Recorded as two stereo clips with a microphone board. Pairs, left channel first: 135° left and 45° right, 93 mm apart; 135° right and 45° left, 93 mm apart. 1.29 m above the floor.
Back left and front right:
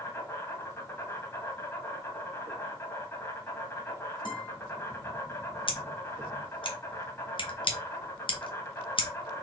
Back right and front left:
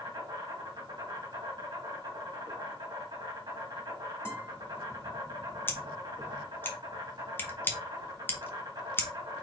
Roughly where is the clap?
I don't hear a clap.